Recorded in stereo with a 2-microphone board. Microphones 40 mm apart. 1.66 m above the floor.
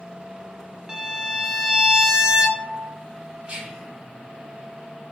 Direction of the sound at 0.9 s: 20° right (ahead or behind).